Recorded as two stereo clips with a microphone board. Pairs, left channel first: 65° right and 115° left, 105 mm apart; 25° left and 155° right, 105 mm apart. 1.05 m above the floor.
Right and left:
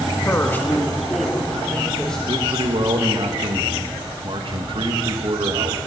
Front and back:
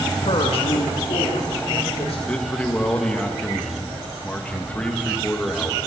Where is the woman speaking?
5° right, 1.5 m; by 2.2 s 15° left, 4 m.